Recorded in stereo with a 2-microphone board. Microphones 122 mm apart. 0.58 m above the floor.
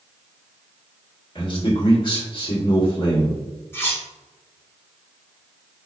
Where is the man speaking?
40° left (ahead or behind), 1.6 m.